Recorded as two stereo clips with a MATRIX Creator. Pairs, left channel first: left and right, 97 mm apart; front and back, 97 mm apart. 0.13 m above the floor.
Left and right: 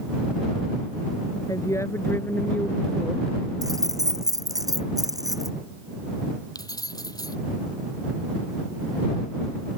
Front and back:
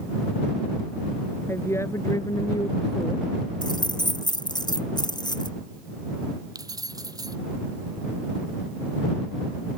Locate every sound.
1.5 s a woman speaking: 55° left; by 3.3 s straight ahead
3.6 s keys jangling: 40° right
6.5 s keys jangling: 135° left